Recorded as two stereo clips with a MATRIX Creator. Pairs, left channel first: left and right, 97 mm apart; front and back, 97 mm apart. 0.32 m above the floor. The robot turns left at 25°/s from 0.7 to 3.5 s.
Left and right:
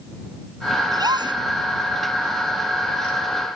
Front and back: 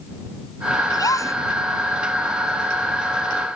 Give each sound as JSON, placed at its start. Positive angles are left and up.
{"t": 0.9, "sound": "a gasp", "azimuth_deg": -45}